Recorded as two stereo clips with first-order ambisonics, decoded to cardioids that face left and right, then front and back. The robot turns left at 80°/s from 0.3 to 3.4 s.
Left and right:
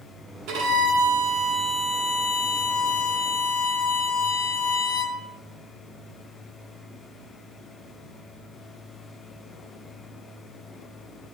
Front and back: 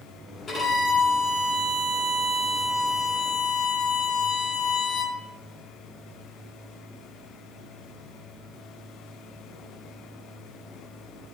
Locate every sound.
0.5 s a violin: 65° right, 1.7 m; by 5.2 s 60° left, 1.7 m